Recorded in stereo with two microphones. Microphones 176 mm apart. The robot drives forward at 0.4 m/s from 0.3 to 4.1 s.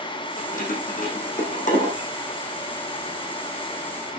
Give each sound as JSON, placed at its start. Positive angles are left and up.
{"t": 0.4, "sound": "keys jangling", "side_deg": 55, "distance_m": 4.5}